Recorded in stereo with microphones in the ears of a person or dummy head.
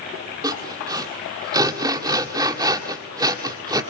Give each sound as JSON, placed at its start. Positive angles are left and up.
{"t": 0.4, "sound": "sawing", "side_deg": -15, "distance_m": 1.7}